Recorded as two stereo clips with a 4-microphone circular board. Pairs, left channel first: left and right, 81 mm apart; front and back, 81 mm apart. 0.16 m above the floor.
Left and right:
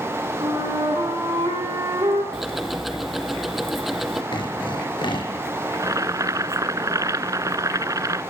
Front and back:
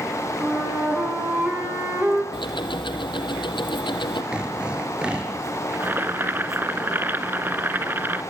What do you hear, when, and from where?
0.4 s a flute: 110° right, 10 m
2.3 s ticking: 5° right, 2.5 m
4.3 s sawing: 100° left, 3.5 m
5.7 s boiling: 125° right, 0.8 m